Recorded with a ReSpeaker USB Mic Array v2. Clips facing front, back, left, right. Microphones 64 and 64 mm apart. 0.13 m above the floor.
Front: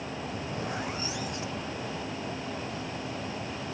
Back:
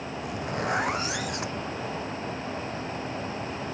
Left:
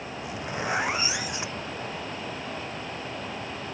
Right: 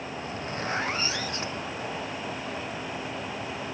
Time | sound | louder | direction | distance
0.2 | a zipper | back 7 dB, left 3 dB | 165° left | ?